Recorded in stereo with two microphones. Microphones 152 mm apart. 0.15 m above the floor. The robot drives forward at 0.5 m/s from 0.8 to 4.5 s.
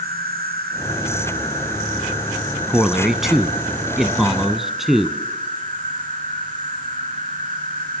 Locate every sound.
0.0 s an insect: 85° right, 3 m; by 8.0 s 60° right (ahead or behind), 4 m
2.7 s a man speaking: centre (ahead or behind), 1.0 m